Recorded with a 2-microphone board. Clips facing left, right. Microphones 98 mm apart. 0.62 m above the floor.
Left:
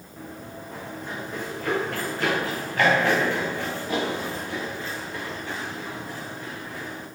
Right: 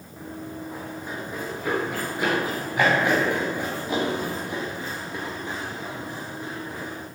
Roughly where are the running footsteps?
Centre.